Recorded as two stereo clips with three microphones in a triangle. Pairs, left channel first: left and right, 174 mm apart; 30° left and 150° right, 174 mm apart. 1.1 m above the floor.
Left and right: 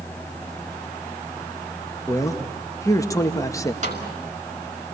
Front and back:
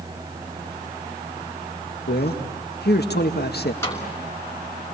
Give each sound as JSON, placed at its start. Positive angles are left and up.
{"t": 2.1, "sound": "a man speaking", "azimuth_deg": 20, "distance_m": 1.7}
{"t": 3.8, "sound": "a snare drum", "azimuth_deg": -45, "distance_m": 6.0}